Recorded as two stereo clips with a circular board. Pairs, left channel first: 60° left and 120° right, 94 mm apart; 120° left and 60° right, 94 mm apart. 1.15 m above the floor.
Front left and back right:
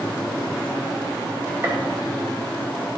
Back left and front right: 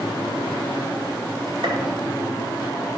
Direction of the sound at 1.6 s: 60° right.